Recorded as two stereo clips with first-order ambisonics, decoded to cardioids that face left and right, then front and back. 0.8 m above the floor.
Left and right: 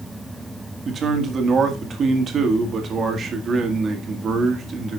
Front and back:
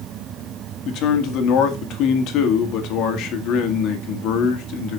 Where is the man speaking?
30° right, 1.8 m.